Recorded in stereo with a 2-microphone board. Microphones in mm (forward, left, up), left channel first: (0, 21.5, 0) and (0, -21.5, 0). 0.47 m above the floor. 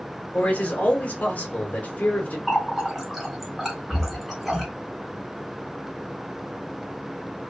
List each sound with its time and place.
0.3 s a man speaking: 35° left (ahead or behind), 1.0 m
2.5 s a running tap: 5° right (ahead or behind), 0.9 m